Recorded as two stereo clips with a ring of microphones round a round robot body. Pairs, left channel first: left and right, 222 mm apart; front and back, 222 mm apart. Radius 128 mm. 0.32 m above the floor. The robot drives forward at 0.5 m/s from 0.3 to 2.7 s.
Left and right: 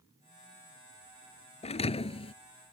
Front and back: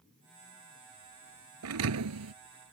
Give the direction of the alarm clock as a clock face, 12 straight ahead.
No alarm clock in this recording.